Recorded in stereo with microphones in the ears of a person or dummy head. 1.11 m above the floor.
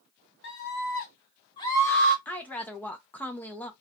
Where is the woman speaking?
5° left (ahead or behind), 0.6 m.